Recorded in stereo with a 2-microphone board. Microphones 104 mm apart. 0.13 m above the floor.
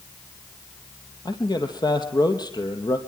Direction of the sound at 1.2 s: 40° left (ahead or behind).